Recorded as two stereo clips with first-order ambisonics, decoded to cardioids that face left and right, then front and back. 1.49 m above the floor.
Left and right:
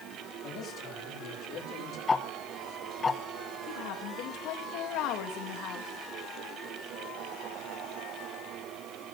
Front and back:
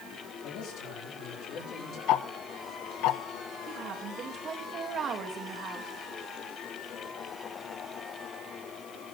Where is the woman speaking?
120° left, 2.0 m.